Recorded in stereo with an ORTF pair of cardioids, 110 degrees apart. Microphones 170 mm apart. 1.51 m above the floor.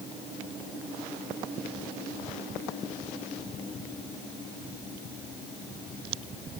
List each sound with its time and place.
Only background noise.